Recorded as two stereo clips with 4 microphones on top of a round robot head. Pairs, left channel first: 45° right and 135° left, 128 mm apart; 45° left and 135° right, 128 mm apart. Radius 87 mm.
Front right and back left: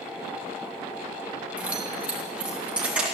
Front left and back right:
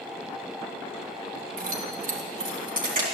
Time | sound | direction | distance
1.6 | keys jangling | 145° right | 2 m